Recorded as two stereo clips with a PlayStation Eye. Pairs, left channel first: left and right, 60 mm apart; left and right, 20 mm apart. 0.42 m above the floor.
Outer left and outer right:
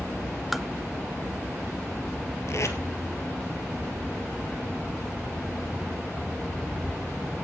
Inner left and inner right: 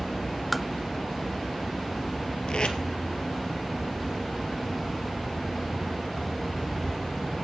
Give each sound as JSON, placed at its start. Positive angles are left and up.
{"t": 0.5, "sound": "tapping", "side_deg": -5, "distance_m": 0.8}
{"t": 2.5, "sound": "tape being pulled", "side_deg": 55, "distance_m": 1.9}